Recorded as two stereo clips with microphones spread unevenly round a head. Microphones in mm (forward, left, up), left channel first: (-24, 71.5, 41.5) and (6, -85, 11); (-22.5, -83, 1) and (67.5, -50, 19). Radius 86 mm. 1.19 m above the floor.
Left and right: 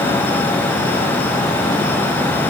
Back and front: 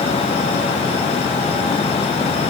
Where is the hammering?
I don't hear hammering.